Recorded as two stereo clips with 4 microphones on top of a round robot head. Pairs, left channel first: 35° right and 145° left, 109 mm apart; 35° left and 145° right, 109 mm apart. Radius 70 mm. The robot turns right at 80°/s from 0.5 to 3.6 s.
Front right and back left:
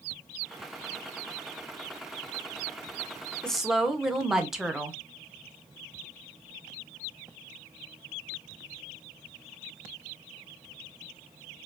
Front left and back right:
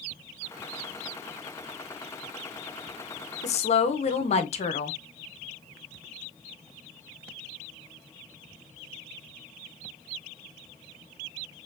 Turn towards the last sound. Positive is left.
turn(degrees=60)